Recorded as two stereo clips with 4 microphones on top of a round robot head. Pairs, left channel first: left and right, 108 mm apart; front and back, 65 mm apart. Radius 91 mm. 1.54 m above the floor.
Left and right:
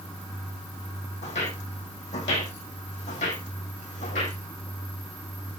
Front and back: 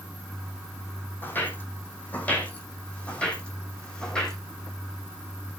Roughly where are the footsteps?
Ahead left.